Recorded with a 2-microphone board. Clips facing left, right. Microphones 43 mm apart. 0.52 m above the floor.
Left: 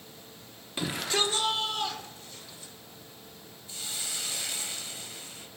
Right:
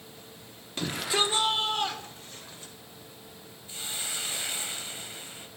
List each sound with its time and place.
0.8 s a shout: 10° left (ahead or behind), 0.6 m; by 2.7 s 45° right (ahead or behind), 1.6 m
3.7 s a hiss: 30° right (ahead or behind), 0.6 m